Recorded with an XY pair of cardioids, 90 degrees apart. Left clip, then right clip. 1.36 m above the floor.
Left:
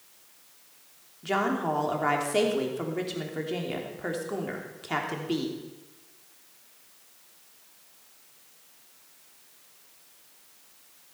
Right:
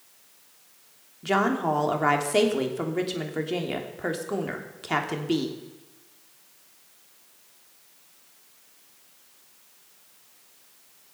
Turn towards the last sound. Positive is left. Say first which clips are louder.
# right 3 dB
turn(degrees=-35)